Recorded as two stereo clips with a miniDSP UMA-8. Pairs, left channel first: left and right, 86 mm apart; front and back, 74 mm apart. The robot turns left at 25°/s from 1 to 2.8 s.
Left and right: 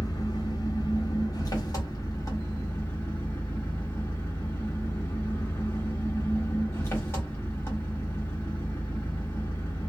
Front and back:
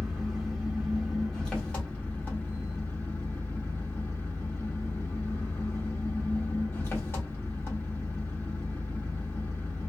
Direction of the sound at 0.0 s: 85° left.